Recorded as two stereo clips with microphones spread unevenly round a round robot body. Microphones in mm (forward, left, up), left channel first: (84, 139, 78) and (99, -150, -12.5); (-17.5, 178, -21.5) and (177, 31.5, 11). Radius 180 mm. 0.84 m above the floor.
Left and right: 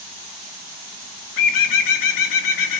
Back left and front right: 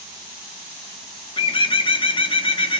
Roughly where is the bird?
Left.